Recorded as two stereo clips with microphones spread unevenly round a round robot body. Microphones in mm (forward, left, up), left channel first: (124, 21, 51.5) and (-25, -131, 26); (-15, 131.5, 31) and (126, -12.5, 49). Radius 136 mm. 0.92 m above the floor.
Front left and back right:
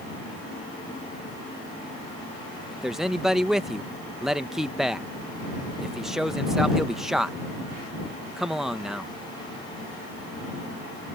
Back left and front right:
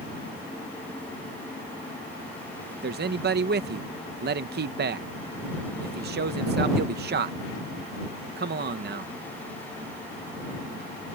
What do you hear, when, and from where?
2.7 s a man speaking: 55° right